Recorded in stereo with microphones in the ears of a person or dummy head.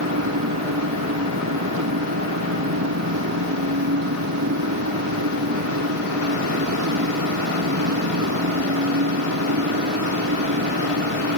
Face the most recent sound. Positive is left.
turn(degrees=-80)